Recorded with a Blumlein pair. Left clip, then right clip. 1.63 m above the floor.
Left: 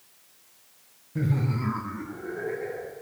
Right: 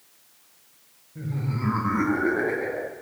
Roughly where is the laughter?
Ahead left.